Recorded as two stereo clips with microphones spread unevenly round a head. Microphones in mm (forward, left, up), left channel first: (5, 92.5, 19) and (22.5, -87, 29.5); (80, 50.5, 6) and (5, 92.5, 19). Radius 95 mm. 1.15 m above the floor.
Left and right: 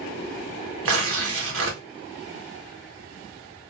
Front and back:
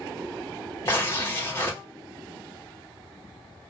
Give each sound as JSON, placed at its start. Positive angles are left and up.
{"t": 0.8, "sound": "tearing paper", "azimuth_deg": -95, "distance_m": 1.1}